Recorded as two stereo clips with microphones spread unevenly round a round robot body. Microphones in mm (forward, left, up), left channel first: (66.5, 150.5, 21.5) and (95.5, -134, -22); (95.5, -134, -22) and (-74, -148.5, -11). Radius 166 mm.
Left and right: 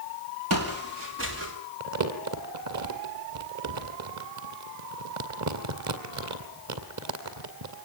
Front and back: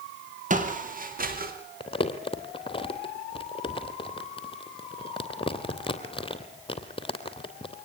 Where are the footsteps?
135° right, 4.5 m; by 1.5 s 145° right, 5 m.